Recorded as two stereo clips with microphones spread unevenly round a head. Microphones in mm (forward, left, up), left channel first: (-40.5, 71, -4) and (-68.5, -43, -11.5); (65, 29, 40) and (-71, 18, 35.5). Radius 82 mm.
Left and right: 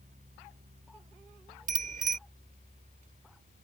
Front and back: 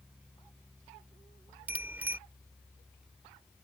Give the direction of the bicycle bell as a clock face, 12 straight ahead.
3 o'clock.